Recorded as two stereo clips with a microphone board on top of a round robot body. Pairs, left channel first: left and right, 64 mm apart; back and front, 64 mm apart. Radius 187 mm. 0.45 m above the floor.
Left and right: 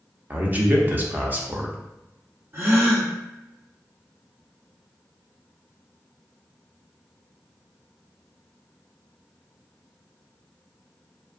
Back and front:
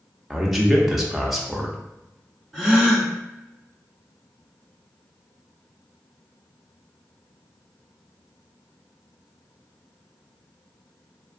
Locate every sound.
0.3 s a man speaking: 80° right, 0.9 m
2.5 s a gasp: 100° right, 1.7 m